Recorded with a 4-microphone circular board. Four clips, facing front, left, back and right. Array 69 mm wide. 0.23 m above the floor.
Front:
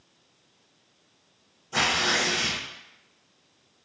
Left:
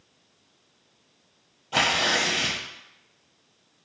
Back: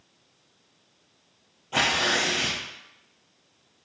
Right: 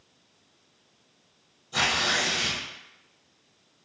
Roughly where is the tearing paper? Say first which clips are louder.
Left 3 dB, back 1 dB; behind left.